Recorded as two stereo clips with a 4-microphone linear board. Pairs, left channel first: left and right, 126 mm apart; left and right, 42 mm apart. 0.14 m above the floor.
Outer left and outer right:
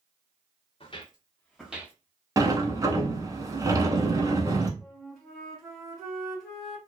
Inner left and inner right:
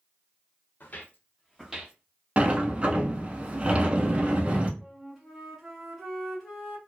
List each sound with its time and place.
0.8 s footsteps: 50° left (ahead or behind), 0.8 m; by 1.9 s 20° right (ahead or behind), 0.7 m
2.4 s a sliding door: 25° right (ahead or behind), 0.5 m
4.8 s a flute: centre (ahead or behind), 1.4 m